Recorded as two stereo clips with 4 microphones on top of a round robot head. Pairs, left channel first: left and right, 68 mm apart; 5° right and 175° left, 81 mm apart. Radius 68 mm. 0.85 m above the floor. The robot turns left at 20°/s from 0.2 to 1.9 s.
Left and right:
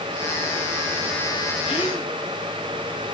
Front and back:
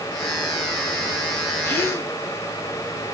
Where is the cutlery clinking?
I don't hear cutlery clinking.